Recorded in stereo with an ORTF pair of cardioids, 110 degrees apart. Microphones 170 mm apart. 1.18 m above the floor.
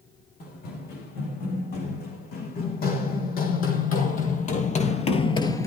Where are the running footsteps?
70° left, 6.5 m; by 5.7 s 30° left, 1.3 m.